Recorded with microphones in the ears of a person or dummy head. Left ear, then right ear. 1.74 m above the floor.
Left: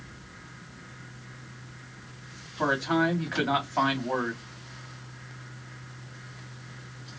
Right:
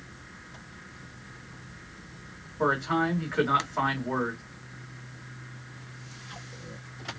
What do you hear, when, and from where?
2.6 s a man speaking: 20° left (ahead or behind), 3.5 m